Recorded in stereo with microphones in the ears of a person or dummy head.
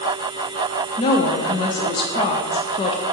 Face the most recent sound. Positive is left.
turn(degrees=25)  # may be behind; listen again after turning